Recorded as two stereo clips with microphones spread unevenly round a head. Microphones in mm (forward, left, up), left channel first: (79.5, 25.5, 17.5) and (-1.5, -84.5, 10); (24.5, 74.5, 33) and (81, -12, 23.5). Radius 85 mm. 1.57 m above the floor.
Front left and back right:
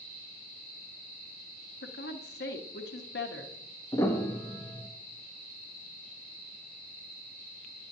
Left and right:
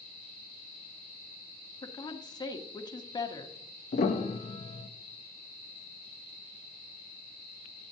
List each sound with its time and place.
1.8 s a woman speaking: 75° left, 1.1 m
3.9 s a piano: 130° left, 0.7 m